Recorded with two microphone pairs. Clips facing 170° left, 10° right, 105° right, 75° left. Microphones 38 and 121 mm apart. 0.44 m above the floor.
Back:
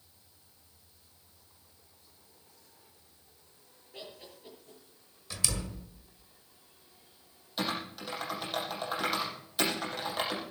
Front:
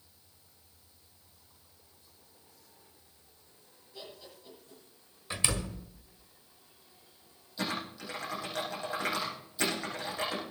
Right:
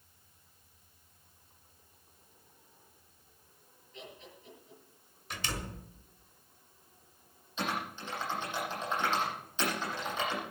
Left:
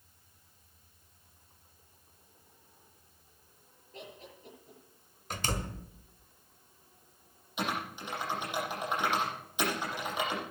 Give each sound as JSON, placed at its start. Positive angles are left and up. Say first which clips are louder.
{"t": 3.9, "sound": "laughter", "louder": "back 1 dB, left 2 dB", "azimuth_deg": 125, "distance_m": 7.5}
{"t": 5.3, "sound": "a door slam", "louder": "front 3 dB, left 4 dB", "azimuth_deg": 40, "distance_m": 1.7}
{"t": 7.6, "sound": "typing on a keyboard", "louder": "back 1 dB, left 1 dB", "azimuth_deg": 150, "distance_m": 8.0}